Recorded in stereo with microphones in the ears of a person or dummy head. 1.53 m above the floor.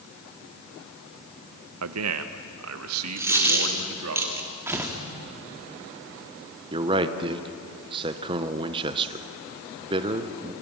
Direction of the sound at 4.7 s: 10° right (ahead or behind).